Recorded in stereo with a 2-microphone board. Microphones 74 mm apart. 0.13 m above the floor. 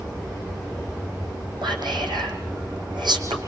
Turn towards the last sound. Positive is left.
turn(degrees=-75)  # may be behind; listen again after turning